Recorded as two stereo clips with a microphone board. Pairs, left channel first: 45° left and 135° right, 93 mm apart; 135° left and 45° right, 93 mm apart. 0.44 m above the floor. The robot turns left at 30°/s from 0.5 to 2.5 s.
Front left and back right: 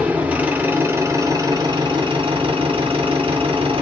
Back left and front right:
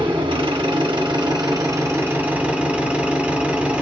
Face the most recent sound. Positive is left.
turn(degrees=-120)